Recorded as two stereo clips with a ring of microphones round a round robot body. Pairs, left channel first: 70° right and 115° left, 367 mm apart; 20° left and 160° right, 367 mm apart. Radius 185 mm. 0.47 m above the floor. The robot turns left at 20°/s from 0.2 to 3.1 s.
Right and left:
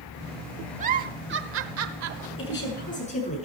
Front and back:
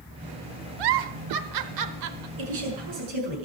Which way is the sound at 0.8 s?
175° right.